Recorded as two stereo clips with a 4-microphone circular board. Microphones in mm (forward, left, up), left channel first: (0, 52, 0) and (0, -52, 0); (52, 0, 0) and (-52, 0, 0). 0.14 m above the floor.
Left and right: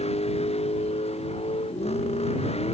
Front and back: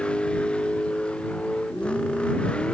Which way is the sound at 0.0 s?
80° left.